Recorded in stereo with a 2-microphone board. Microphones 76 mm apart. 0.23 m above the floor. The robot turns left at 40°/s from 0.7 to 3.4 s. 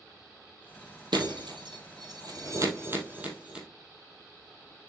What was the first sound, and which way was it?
Breaking glass, 75° right (ahead or behind).